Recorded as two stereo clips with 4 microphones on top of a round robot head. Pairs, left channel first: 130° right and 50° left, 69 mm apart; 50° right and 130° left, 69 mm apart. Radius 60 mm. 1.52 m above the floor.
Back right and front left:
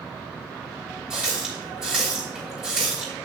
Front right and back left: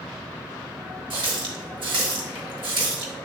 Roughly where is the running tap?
Behind left.